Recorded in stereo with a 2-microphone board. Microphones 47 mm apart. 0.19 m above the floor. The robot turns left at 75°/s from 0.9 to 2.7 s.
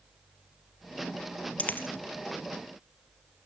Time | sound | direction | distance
1.6 | a dropped coin | 30° left (ahead or behind) | 1.6 m